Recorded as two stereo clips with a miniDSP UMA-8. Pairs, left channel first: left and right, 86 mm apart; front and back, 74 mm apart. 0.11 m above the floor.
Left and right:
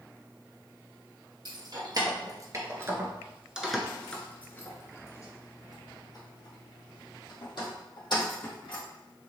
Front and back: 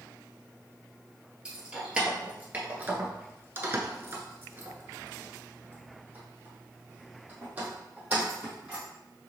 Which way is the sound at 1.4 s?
100° right.